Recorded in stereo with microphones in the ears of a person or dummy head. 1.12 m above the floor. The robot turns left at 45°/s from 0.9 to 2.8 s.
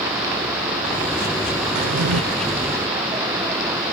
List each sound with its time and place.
1.8 s a drawer: 65° right (ahead or behind); by 2.2 s 80° right